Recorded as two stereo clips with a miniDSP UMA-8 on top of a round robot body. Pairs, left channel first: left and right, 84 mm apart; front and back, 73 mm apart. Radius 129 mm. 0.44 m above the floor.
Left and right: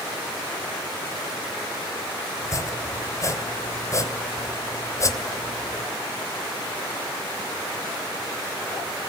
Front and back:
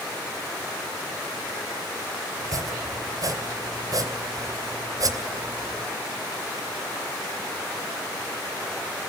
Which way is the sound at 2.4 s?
145° left.